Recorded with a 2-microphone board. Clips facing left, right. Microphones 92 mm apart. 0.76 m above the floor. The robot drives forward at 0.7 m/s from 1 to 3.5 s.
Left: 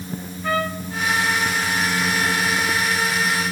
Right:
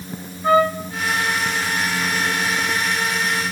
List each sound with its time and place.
0.4 s a trumpet: 25° right (ahead or behind), 2 m